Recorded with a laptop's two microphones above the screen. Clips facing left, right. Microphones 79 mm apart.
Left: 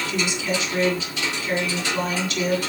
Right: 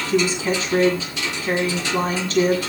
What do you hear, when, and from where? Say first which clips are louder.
0.1 s a woman speaking: right 8 dB; 40° right (ahead or behind), 9 m